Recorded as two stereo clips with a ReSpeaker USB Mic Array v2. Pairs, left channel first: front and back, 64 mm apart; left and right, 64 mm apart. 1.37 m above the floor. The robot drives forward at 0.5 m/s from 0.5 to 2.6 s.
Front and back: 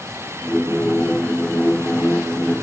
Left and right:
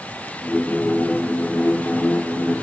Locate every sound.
Only background noise.